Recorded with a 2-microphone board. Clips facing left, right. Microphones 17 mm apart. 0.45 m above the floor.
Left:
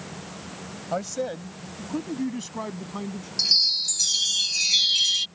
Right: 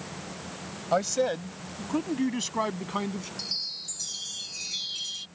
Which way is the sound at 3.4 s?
55° left (ahead or behind).